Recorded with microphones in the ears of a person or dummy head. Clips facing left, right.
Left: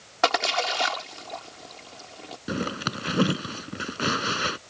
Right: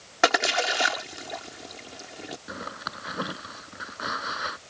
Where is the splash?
20° right (ahead or behind).